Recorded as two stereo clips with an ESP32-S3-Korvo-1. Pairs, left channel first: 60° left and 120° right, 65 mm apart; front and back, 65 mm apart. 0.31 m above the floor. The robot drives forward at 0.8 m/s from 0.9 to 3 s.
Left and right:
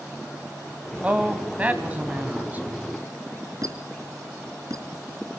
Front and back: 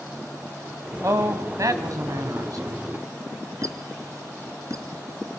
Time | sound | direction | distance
1.0 | a man speaking | 175° left | 1.8 m
3.6 | a squeak | 145° right | 2 m